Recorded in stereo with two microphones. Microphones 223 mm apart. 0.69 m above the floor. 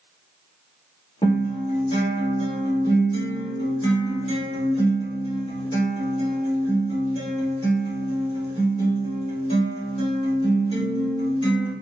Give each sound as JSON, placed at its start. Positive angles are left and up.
{"t": 1.2, "sound": "a guitar", "side_deg": 25, "distance_m": 1.9}